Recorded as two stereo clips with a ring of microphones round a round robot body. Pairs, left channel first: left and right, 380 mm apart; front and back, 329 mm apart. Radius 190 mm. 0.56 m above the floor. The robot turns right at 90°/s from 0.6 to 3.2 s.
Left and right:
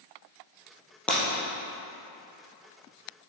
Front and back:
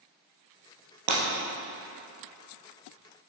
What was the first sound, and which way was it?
Breaking glass, 175° left.